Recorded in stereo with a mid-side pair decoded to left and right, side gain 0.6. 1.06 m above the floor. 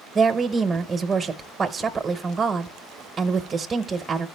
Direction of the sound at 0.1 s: 25° right.